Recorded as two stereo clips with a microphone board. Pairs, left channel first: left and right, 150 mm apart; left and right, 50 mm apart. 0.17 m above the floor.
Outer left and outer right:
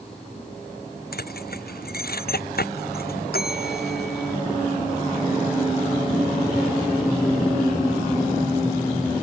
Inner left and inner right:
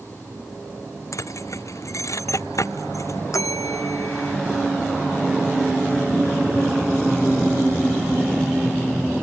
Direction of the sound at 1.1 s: 75° left (ahead or behind).